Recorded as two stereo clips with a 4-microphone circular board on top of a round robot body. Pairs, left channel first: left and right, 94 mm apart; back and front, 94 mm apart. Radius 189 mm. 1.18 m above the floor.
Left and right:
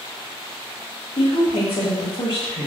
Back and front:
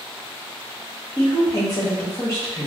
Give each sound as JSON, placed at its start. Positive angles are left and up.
{"t": 1.2, "sound": "a woman speaking", "azimuth_deg": 120, "distance_m": 1.0}